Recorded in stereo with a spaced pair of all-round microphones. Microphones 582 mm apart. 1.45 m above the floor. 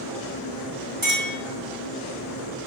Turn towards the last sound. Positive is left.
turn(degrees=-55)  # may be behind; listen again after turning